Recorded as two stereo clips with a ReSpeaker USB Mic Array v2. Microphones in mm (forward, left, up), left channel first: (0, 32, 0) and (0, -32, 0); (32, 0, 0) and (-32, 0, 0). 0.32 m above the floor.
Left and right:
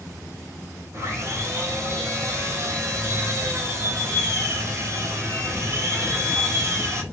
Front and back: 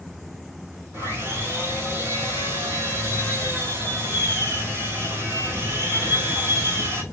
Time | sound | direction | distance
0.9 | sawing | 125° right | 2 m